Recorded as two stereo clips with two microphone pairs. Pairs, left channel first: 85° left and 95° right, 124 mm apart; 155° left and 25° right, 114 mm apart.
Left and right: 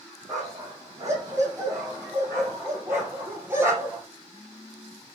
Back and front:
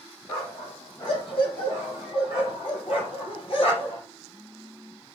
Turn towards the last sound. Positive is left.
turn(degrees=-170)